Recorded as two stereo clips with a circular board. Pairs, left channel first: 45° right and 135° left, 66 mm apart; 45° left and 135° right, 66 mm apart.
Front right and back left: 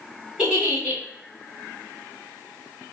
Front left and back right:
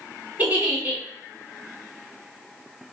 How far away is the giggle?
About 1.8 m.